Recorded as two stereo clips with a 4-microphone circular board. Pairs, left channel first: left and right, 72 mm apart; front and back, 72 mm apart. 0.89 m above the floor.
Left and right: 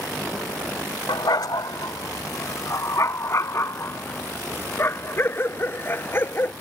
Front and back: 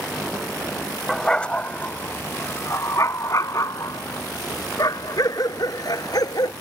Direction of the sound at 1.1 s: 85° left.